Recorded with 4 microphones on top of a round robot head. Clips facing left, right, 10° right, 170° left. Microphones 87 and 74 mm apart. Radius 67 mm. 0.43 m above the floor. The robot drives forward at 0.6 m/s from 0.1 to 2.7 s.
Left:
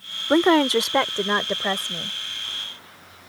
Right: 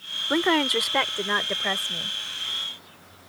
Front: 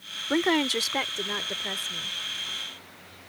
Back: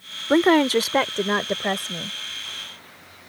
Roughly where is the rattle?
No rattle in this recording.